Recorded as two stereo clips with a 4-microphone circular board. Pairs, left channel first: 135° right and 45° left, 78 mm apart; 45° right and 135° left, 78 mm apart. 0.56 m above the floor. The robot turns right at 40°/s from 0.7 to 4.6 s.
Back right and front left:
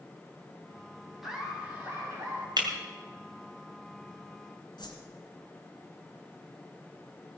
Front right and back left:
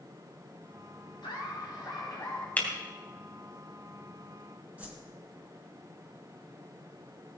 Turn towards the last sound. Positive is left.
turn(degrees=-155)